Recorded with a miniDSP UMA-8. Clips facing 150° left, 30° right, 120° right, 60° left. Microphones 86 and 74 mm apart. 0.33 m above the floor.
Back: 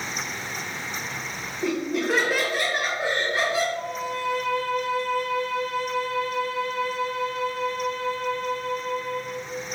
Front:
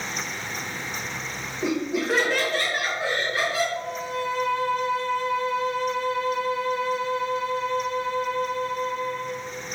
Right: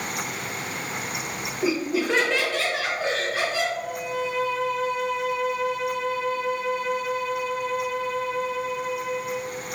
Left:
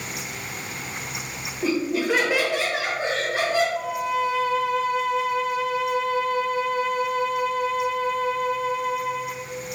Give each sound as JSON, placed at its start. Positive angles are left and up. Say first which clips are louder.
{"t": 1.6, "sound": "laughter", "louder": "even, left 1 dB", "azimuth_deg": -70, "distance_m": 1.0}
{"t": 3.8, "sound": "a violin", "louder": "even, left 4 dB", "azimuth_deg": 35, "distance_m": 0.5}